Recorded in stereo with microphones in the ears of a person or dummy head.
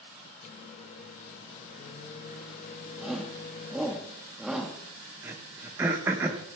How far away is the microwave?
About 0.6 m.